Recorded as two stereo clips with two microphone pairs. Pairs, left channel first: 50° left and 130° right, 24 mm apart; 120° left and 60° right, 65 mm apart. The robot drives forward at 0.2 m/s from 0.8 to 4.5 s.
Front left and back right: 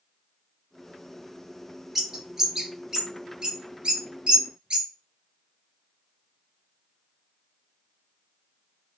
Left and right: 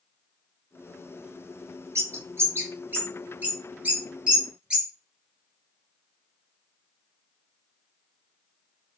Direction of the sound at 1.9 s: 75° right.